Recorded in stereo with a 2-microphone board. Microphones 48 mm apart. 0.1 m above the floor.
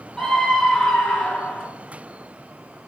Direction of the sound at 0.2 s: 5° left (ahead or behind).